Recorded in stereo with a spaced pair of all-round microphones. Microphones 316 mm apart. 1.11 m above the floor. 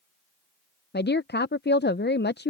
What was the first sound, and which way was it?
A woman speaking, 35° left (ahead or behind).